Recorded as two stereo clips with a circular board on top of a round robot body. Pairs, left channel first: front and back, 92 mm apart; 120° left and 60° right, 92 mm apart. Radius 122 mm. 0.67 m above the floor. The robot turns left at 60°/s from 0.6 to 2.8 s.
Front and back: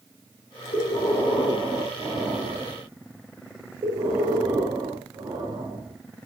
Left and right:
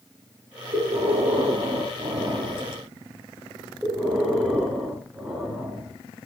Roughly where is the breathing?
Ahead right.